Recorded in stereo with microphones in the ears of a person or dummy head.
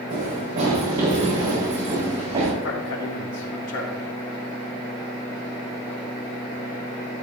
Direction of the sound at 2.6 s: 70° left (ahead or behind).